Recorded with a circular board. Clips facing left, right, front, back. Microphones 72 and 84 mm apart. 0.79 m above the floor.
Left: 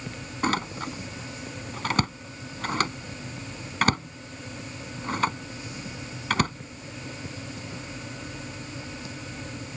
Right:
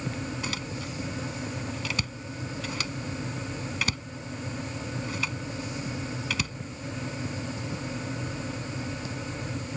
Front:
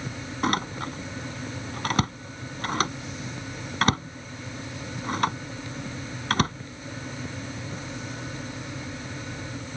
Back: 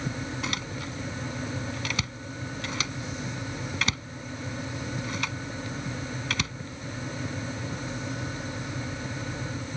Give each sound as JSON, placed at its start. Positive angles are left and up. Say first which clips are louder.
{"t": 0.4, "sound": "a door slam", "louder": "left 7 dB, front 7 dB", "azimuth_deg": 45}